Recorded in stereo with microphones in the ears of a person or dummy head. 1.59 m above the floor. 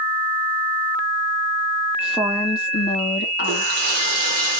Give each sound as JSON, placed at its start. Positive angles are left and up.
{"t": 2.0, "sound": "a woman speaking", "side_deg": -5, "distance_m": 0.6}
{"t": 3.4, "sound": "a running tap", "side_deg": -40, "distance_m": 0.7}